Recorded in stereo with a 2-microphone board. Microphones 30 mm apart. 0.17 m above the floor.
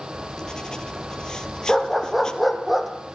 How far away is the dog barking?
About 3.5 m.